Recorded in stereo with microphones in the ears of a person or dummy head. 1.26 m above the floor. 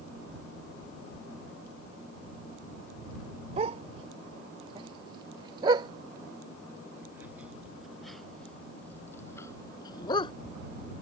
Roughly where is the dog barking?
Right.